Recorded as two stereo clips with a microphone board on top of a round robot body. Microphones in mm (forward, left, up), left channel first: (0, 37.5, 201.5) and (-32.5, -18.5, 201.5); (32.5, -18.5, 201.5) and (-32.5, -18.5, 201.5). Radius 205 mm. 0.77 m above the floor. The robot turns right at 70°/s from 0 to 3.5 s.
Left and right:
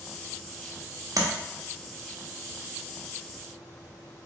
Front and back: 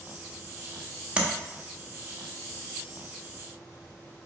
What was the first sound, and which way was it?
Tapping, 110° right.